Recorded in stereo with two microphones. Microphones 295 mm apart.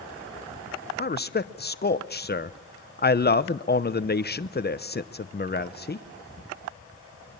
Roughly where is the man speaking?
Left.